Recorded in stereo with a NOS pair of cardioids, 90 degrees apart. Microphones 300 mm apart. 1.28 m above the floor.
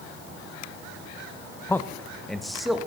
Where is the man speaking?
10° left, 0.6 m; by 2.9 s straight ahead, 1.6 m.